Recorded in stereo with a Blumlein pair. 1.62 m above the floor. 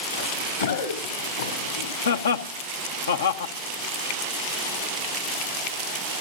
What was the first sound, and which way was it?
Running footsteps, 70° left.